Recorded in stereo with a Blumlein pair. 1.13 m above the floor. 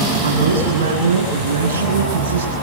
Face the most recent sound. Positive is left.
turn(degrees=-65)